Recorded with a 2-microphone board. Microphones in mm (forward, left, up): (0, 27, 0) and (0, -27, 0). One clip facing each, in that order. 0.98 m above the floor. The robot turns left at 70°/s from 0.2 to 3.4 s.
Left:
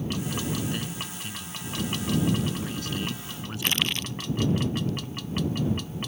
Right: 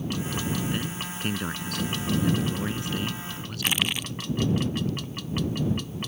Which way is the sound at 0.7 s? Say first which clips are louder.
Right 2 dB; 10° right.